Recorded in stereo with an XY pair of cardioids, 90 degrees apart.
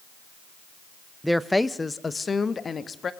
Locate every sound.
1.2 s a woman speaking: 5° right, 0.6 m; by 3.1 s 45° left, 1.5 m